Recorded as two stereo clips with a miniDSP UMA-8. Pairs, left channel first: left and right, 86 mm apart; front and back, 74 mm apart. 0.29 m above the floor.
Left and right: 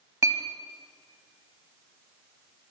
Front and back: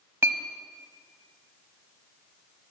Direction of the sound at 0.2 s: 135° right.